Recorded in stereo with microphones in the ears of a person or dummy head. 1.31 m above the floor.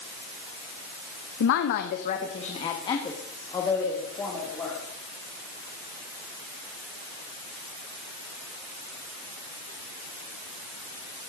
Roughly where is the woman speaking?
Left.